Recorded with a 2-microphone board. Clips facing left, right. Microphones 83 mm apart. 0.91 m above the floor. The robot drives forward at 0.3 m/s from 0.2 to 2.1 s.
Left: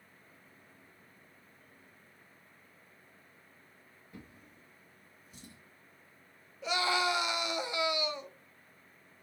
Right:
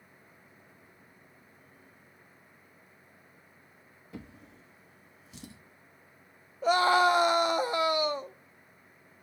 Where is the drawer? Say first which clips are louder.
Right 7 dB; 80° right, 0.7 m.